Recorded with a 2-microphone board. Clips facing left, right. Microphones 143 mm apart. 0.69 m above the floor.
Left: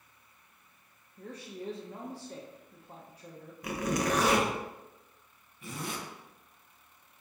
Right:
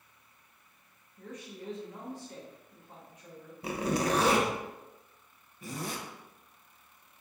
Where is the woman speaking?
35° left (ahead or behind), 0.5 m.